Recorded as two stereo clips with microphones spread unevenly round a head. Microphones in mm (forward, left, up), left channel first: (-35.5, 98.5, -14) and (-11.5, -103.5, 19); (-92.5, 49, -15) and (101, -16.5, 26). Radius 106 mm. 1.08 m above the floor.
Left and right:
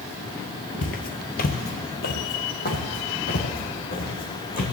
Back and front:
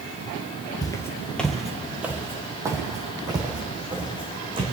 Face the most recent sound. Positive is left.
turn(degrees=40)